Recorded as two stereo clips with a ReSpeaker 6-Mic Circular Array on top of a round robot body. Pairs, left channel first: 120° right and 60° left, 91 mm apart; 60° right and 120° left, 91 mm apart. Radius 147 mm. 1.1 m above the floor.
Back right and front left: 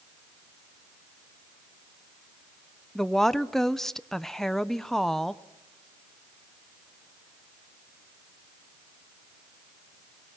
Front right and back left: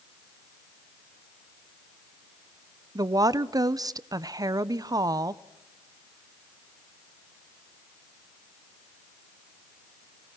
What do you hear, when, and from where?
3.0 s a woman speaking: 155° left, 0.7 m